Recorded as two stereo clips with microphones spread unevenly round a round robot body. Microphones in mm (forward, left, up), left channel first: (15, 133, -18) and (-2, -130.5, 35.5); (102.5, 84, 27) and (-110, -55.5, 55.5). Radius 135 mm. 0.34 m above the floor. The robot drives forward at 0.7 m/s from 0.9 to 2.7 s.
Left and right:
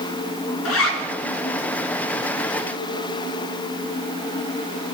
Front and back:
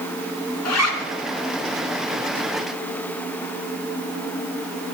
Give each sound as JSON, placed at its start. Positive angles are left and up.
{"t": 0.7, "sound": "a zipper", "azimuth_deg": 55, "distance_m": 2.0}